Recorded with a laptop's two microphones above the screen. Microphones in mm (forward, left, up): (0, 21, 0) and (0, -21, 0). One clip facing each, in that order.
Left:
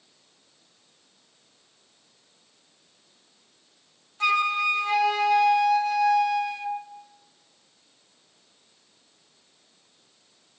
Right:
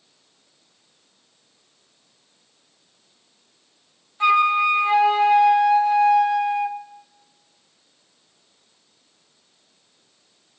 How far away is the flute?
About 0.9 m.